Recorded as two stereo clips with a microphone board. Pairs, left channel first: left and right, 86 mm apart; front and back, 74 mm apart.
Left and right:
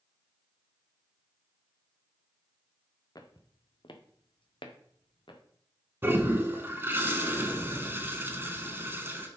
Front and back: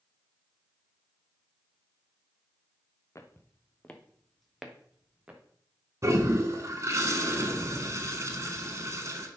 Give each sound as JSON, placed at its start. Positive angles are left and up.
{"t": 3.1, "sound": "footsteps", "azimuth_deg": 50, "distance_m": 1.3}
{"t": 6.0, "sound": "a toilet flushing", "azimuth_deg": -145, "distance_m": 1.5}